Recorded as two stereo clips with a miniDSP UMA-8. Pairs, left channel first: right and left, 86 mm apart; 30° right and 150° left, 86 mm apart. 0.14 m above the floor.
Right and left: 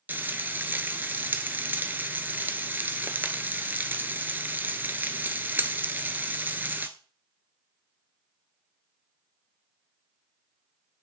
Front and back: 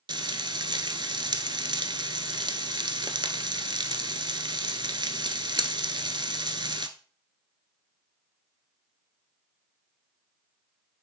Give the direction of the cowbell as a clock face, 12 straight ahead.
I don't hear a cowbell.